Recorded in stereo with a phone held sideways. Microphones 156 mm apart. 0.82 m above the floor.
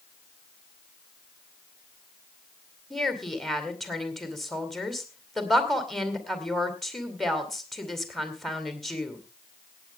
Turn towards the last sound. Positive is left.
turn(degrees=0)  # may be behind; listen again after turning